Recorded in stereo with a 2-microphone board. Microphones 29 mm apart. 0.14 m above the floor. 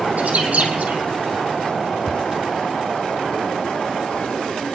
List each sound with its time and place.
0.2 s a bird: 50° right (ahead or behind), 3 m
2.1 s a cupboard door: centre (ahead or behind), 0.5 m